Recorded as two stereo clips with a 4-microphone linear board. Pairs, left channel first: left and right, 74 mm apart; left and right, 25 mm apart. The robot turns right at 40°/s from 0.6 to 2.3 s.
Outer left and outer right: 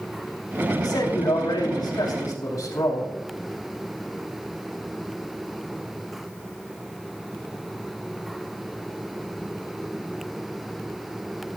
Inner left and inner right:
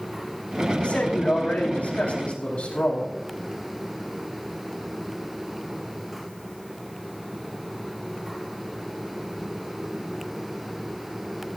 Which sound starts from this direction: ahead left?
A man speaking, at 0.8 s.